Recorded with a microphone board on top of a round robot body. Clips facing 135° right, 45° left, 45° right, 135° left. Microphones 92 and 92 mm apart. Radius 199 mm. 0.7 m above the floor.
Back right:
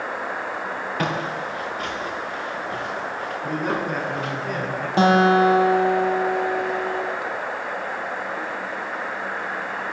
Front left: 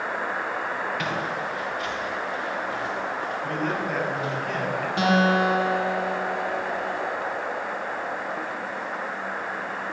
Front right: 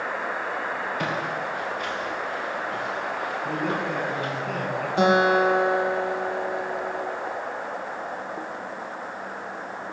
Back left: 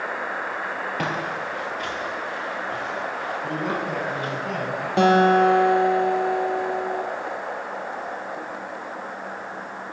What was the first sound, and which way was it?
Footsteps, 170° left.